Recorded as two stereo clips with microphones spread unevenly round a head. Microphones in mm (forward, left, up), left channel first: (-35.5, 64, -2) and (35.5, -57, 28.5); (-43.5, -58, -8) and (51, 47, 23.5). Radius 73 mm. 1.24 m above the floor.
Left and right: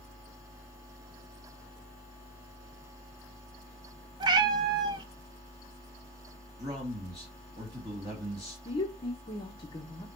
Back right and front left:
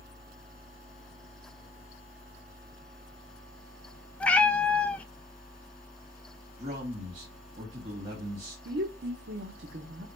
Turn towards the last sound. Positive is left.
turn(degrees=65)